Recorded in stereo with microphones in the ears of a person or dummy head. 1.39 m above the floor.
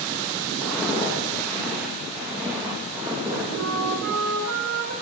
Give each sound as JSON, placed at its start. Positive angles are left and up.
{"t": 0.6, "sound": "footsteps", "side_deg": 10, "distance_m": 4.0}
{"t": 3.6, "sound": "a flute", "side_deg": -80, "distance_m": 1.7}